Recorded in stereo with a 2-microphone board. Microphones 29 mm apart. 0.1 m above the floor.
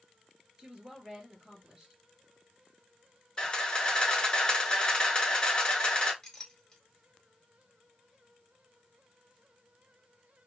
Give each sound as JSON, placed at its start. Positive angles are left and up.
{"t": 0.6, "sound": "a woman speaking", "side_deg": -25, "distance_m": 1.8}
{"t": 3.4, "sound": "a camera shutter", "side_deg": 25, "distance_m": 1.0}
{"t": 6.2, "sound": "a clink", "side_deg": 15, "distance_m": 0.8}